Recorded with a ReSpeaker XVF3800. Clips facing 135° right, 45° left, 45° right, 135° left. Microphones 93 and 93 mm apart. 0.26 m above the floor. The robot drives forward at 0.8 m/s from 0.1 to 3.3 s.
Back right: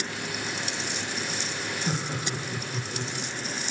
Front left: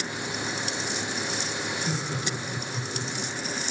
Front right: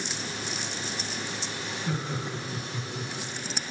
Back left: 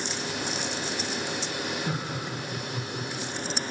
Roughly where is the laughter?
Behind.